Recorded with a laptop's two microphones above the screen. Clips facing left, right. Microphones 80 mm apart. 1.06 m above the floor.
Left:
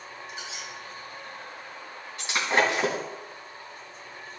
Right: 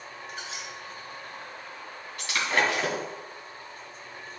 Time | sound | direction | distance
0.3 | a squeak | 45° right (ahead or behind) | 1.5 m
2.2 | breaking glass | 20° left (ahead or behind) | 2.5 m